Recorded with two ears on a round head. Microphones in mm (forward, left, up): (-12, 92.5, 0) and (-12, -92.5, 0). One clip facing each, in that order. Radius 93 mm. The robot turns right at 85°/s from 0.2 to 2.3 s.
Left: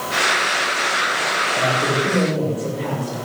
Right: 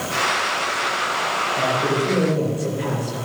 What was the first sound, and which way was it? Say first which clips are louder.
A man speaking: even; 115° left.